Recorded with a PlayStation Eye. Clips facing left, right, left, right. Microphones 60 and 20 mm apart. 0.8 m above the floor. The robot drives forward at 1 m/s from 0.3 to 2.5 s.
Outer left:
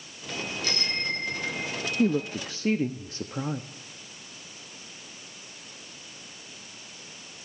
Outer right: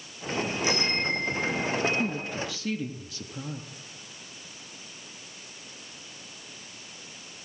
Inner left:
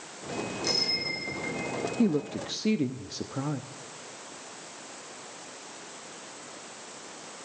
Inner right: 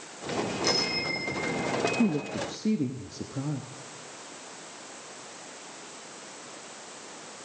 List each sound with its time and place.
0.6 s a bicycle bell: 15° right (ahead or behind), 9 m
2.0 s a woman speaking: 50° left (ahead or behind), 0.7 m; by 3.7 s 35° left (ahead or behind), 1.0 m